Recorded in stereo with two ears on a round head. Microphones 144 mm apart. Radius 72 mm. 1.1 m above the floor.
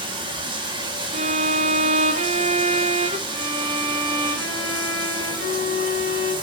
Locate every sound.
0.0 s running water: 30° right (ahead or behind), 1.5 m
1.1 s a violin: 40° right (ahead or behind), 0.8 m
3.3 s a violin: 65° right (ahead or behind), 5.5 m